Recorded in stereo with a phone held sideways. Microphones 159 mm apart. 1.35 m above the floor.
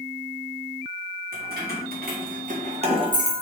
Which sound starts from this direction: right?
Keys jangling, at 1.3 s.